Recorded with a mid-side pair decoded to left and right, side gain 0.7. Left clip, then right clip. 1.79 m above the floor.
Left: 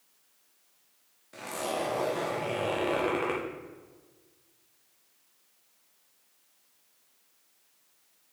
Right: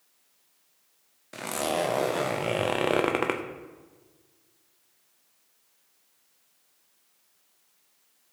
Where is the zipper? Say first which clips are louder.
Right 4 dB; 40° right, 0.7 m.